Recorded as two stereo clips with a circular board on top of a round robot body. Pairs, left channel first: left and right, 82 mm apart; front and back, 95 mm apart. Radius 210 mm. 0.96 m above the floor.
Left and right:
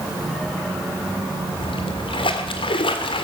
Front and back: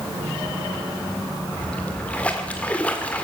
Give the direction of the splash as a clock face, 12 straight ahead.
9 o'clock.